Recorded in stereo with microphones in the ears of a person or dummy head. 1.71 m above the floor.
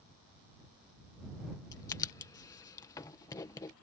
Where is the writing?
20° left (ahead or behind).